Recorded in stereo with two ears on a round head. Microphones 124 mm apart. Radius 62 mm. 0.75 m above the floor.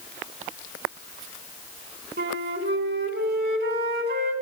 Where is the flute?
85° right, 3 m.